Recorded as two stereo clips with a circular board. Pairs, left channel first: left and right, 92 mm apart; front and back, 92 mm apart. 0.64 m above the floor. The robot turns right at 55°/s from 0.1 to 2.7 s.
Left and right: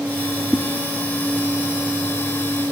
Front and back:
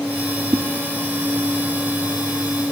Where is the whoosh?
175° left, 0.6 m; by 0.6 s 175° right, 0.6 m.